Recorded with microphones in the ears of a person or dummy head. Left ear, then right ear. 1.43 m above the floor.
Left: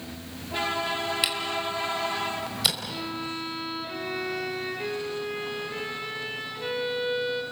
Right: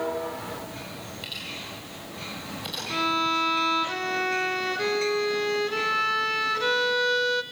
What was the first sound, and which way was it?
A camera shutter, 70° left (ahead or behind).